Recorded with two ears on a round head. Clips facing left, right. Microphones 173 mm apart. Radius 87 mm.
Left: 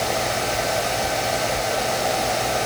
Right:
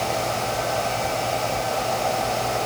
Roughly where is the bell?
No bell in this recording.